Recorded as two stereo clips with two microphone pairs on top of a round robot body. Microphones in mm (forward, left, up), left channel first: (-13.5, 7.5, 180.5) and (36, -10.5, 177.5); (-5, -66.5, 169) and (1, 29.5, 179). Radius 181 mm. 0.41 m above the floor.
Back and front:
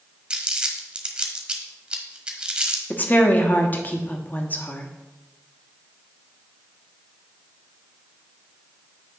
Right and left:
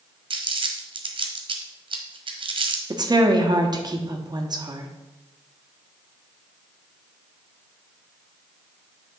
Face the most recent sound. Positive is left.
turn(degrees=115)